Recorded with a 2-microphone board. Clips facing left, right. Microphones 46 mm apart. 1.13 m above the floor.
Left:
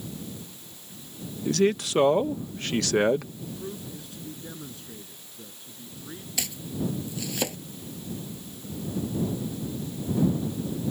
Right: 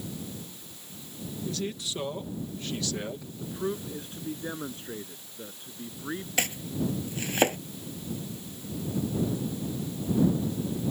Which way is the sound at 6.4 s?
40° right (ahead or behind).